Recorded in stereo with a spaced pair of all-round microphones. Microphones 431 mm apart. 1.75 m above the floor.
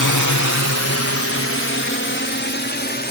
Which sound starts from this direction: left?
A drone, at 0.0 s.